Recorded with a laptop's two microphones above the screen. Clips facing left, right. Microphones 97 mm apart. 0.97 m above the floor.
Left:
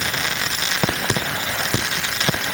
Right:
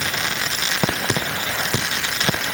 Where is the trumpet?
No trumpet in this recording.